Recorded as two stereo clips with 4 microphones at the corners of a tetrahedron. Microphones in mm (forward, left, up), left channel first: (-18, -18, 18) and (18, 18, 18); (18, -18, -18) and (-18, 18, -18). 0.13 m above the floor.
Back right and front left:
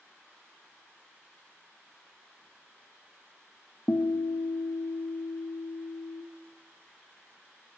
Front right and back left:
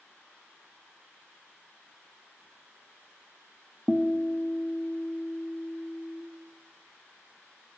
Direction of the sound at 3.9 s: 135° right.